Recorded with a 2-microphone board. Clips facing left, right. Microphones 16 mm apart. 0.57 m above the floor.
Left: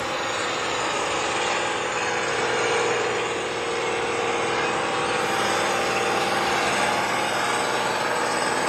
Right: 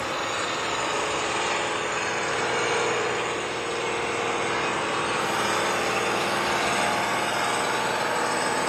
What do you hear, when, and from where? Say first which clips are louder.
0.0 s an engine running: left 2 dB; centre (ahead or behind), 5 m